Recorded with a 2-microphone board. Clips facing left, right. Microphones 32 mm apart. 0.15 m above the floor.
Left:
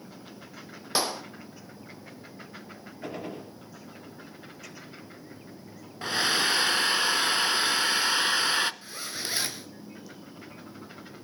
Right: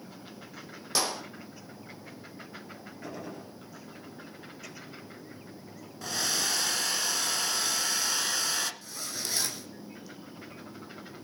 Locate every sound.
0.9 s a clap: 25° left (ahead or behind), 4 m
3.0 s a gunshot: 45° left (ahead or behind), 3.5 m
6.0 s a hair dryer: 35° left (ahead or behind), 1.0 m
8.8 s a zipper: 30° left (ahead or behind), 2.5 m